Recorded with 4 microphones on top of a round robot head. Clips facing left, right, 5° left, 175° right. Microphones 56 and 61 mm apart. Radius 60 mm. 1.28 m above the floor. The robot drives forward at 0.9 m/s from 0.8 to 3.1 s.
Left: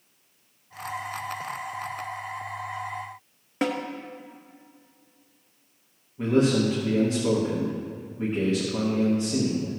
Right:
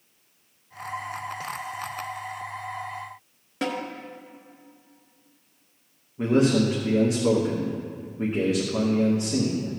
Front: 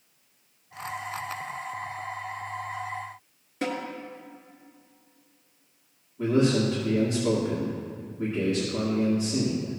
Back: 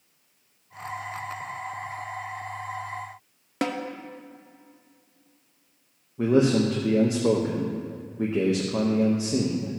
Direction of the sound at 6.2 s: 170° right.